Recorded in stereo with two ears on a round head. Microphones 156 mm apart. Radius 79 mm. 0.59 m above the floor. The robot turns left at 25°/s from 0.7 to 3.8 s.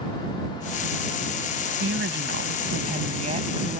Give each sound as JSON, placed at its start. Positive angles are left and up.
{"t": 1.8, "sound": "a woman speaking", "azimuth_deg": -100}